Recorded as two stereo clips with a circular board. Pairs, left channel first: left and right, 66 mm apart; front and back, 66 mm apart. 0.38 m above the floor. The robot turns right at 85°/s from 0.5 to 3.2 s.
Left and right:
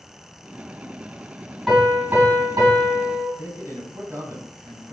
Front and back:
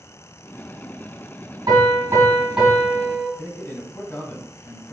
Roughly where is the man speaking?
Ahead right.